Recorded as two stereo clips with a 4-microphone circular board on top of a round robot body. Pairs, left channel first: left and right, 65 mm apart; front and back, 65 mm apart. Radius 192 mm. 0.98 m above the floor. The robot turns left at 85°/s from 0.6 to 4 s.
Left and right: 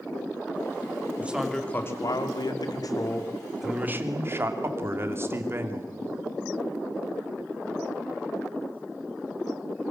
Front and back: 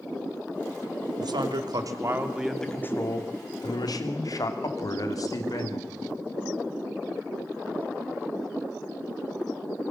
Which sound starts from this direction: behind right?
A man speaking, at 1.2 s.